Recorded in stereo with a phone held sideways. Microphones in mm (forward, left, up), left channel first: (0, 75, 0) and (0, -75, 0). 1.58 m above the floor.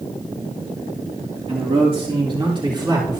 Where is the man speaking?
45° right (ahead or behind), 3 m; by 3.2 s 30° right (ahead or behind), 4 m.